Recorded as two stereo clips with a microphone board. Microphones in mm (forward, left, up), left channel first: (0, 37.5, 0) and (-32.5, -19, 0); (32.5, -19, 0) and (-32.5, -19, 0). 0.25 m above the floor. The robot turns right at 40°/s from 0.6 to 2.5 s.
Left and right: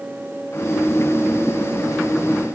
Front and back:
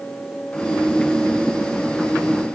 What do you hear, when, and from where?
Only background noise.